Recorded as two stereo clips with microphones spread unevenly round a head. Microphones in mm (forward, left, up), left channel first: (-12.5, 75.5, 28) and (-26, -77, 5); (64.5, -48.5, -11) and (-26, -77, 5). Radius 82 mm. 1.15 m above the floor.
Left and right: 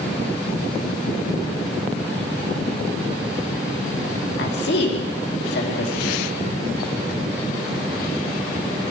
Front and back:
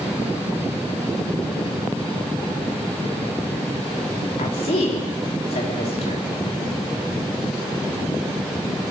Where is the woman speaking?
60° left, 3 m.